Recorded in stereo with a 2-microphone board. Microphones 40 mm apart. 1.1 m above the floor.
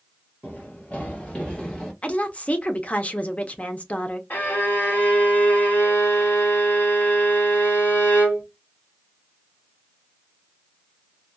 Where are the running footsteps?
45° left (ahead or behind), 1.5 m; by 1.9 s 10° left (ahead or behind), 1.3 m.